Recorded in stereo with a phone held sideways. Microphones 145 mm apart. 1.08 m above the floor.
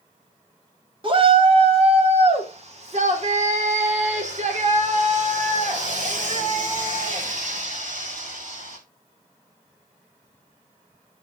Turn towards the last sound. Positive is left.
turn(degrees=-65)  # may be behind; listen again after turning